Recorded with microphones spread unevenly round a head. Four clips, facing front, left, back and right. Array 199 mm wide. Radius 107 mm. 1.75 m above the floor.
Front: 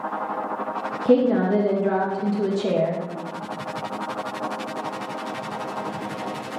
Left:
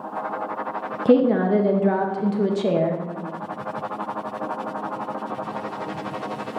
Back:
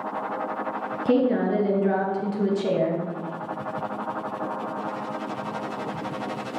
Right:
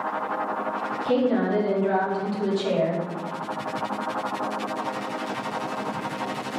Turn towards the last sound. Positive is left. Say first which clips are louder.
# left 6 dB, front 3 dB
turn(degrees=110)